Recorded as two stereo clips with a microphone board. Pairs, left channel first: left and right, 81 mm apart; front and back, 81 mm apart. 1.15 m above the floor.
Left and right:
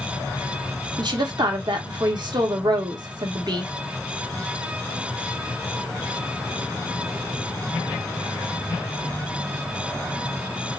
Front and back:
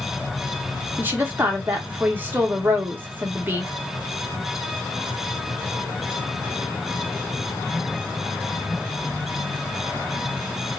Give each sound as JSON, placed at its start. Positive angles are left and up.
{"t": 1.0, "sound": "a woman speaking", "azimuth_deg": -115, "distance_m": 1.3}